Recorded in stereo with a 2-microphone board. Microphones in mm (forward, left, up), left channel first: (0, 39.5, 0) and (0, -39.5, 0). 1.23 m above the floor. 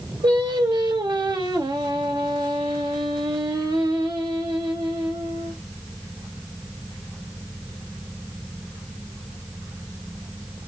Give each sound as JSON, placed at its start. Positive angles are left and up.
{"t": 0.2, "sound": "singing", "side_deg": -70, "distance_m": 1.5}